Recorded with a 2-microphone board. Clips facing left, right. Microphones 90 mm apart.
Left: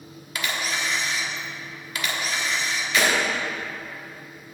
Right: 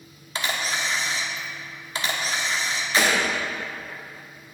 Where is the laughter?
I don't hear laughter.